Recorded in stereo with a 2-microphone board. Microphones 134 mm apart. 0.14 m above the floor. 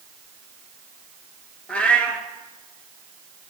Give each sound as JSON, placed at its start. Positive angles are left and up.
{"t": 1.7, "sound": "a cat meowing", "side_deg": 10, "distance_m": 1.1}